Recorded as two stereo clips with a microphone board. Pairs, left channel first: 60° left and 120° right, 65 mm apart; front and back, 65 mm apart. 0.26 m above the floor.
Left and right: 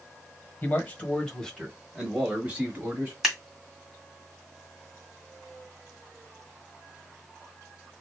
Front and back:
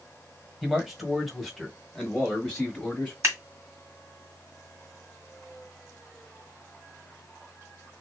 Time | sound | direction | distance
0.6 | a man speaking | 100° left | 1.5 m
3.2 | scissors | 155° left | 2 m